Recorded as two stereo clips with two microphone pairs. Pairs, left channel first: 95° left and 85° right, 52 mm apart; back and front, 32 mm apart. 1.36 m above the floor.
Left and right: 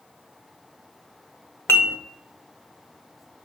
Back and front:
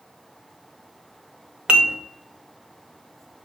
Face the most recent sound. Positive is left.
turn(degrees=55)